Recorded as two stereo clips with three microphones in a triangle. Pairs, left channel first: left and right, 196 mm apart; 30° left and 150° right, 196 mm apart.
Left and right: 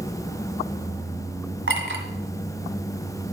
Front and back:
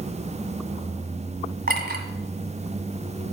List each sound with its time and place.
1.7 s a clink: 110° right, 1.6 m